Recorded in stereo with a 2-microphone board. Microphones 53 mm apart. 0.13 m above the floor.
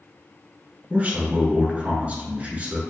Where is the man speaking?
30° right (ahead or behind), 1.2 m.